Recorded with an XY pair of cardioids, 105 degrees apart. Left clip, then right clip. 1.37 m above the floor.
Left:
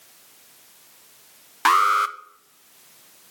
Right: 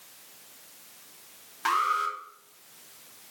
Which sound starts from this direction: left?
An alarm, at 1.6 s.